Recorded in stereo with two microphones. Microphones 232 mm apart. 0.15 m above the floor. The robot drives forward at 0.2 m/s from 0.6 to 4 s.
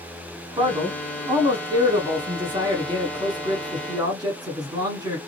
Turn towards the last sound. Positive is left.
turn(degrees=-15)  # may be behind; listen again after turning